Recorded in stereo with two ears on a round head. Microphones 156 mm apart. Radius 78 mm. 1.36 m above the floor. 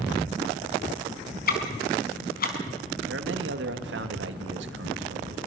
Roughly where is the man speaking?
Right.